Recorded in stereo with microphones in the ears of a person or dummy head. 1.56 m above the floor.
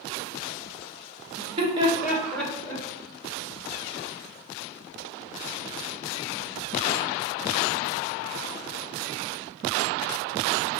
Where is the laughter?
45° right (ahead or behind), 1.0 m; by 2.8 s 10° left (ahead or behind), 1.1 m.